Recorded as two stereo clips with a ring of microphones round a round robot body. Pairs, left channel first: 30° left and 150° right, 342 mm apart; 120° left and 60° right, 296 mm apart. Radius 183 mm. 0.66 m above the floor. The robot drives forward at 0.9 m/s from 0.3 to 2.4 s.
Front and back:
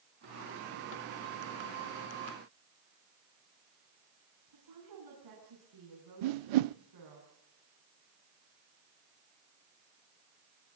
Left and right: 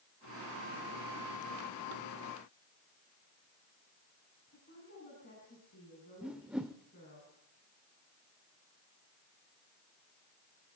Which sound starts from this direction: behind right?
A whoosh, at 6.2 s.